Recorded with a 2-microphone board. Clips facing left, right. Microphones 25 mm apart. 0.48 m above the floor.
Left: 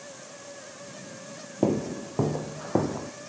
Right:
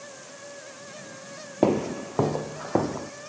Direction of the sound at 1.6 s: 40° right (ahead or behind).